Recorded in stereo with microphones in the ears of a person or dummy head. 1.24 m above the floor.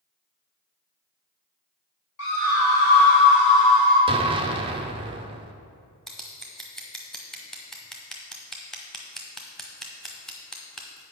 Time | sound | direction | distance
2.2 | a scream | 85° left | 2.5 m
4.1 | an explosion | 20° right (ahead or behind) | 0.5 m
6.1 | scissors | 5° left (ahead or behind) | 1.0 m